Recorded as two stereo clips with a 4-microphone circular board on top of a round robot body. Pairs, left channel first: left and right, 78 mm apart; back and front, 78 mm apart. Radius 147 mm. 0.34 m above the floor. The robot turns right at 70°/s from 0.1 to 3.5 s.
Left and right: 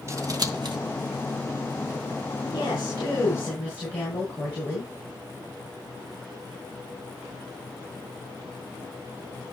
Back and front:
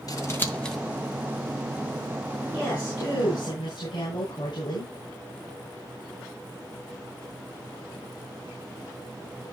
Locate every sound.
0.1 s scissors: 140° right, 2.0 m; by 0.8 s 95° right, 2.0 m
2.5 s a woman speaking: 85° left, 6.5 m; by 4.9 s 155° left, 6.5 m